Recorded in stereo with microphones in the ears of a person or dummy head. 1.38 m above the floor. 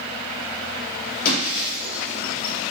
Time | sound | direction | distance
1.2 | breaking glass | 55° left (ahead or behind) | 7 m